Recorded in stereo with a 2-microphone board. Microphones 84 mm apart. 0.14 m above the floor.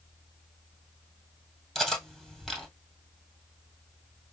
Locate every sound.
1.8 s cutlery clinking: centre (ahead or behind), 2 m